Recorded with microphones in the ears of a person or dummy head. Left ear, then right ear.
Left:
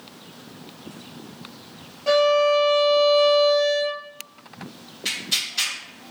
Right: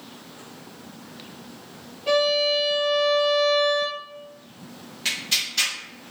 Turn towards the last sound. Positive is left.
turn(degrees=-20)  # may be behind; listen again after turning